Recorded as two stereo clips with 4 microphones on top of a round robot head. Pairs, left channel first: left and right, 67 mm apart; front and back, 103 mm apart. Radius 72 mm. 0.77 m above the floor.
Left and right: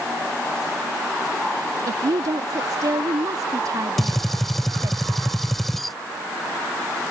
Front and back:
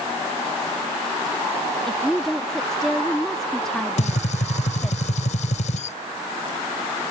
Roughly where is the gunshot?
Ahead.